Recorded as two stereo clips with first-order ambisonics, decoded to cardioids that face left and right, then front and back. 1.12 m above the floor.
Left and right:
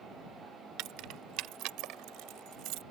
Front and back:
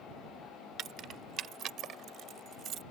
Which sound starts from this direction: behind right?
Keys jangling, at 0.8 s.